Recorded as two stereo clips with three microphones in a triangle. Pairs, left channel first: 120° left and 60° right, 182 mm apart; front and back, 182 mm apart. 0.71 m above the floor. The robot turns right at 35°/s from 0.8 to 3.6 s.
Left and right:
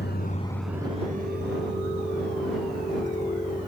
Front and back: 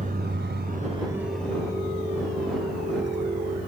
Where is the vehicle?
135° left; by 3.7 s 5° left.